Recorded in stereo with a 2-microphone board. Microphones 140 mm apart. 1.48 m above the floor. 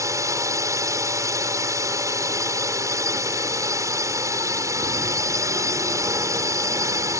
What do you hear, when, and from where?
0.0 s a drone: 20° right (ahead or behind)